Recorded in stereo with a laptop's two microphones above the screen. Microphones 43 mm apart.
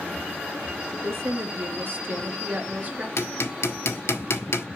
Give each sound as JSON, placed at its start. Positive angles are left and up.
{"t": 0.9, "sound": "a woman speaking", "side_deg": -75, "distance_m": 1.5}
{"t": 3.2, "sound": "hammering", "side_deg": 80, "distance_m": 1.3}